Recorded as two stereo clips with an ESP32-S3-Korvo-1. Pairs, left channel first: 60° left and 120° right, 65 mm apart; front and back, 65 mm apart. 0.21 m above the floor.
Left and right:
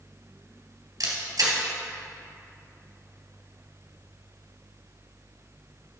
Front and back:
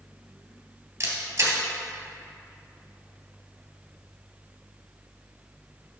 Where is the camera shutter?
135° right, 2.5 m.